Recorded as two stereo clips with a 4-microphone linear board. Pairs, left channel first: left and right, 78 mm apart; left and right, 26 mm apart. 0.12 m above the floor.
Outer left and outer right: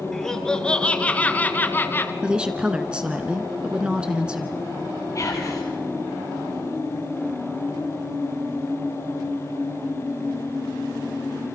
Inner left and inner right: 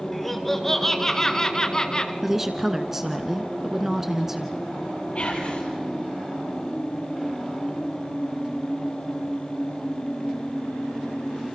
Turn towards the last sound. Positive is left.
turn(degrees=45)  # may be behind; listen again after turning